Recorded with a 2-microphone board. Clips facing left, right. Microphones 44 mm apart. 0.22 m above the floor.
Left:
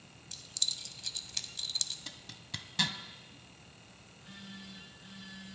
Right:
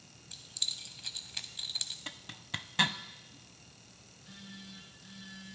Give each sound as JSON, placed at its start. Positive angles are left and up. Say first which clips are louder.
{"t": 0.3, "sound": "keys jangling", "louder": "left 1 dB", "side_deg": -20, "distance_m": 0.6}
{"t": 2.1, "sound": "a zipper", "louder": "right 4 dB", "side_deg": -35, "distance_m": 0.5}
{"t": 4.1, "sound": "a phone buzzing", "louder": "left 1 dB", "side_deg": 45, "distance_m": 7.5}